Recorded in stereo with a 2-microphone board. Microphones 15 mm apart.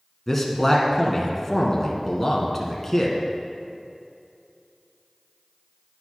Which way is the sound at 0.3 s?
5° left (ahead or behind).